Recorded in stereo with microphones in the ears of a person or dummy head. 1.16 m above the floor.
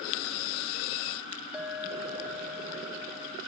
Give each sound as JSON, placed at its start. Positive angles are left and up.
{"t": 1.5, "sound": "a clink", "side_deg": -5, "distance_m": 0.8}